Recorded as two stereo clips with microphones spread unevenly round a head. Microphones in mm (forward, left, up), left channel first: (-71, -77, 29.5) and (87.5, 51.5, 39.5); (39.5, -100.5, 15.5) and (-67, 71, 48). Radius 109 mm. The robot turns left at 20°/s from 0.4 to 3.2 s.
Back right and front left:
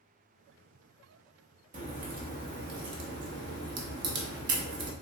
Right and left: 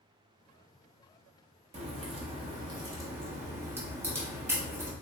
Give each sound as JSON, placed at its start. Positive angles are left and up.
{"t": 1.7, "sound": "a crack", "azimuth_deg": 85, "distance_m": 0.7}